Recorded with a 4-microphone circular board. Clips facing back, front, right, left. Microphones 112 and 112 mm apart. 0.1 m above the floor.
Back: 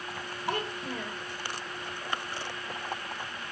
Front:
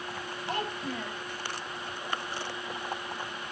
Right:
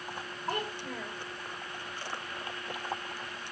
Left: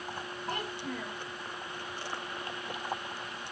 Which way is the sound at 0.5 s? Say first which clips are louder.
Back 1 dB, right 2 dB; 145° right.